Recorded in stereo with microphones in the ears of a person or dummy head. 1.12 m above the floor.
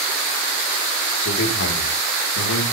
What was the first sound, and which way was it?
A man speaking, 70° left (ahead or behind).